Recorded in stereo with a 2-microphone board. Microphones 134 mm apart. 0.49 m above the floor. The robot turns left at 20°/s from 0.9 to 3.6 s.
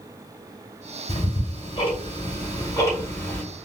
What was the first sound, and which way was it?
Ticking, 45° left (ahead or behind).